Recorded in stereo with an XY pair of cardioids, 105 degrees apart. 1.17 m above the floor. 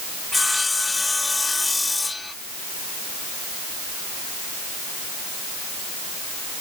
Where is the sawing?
15° left.